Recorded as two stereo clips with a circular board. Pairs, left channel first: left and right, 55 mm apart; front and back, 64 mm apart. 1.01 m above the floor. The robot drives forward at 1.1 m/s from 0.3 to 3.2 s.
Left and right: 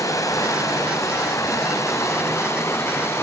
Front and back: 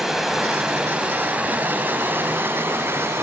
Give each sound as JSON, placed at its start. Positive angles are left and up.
{"t": 0.0, "sound": "running water", "azimuth_deg": 95, "distance_m": 4.0}